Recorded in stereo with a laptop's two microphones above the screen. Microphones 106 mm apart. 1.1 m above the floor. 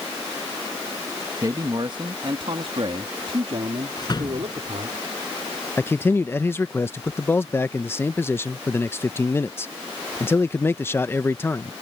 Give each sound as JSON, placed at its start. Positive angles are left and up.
{"t": 1.4, "sound": "a man speaking", "side_deg": -35}
{"t": 4.0, "sound": "a door slam", "side_deg": 40}
{"t": 5.8, "sound": "a man speaking", "side_deg": 20}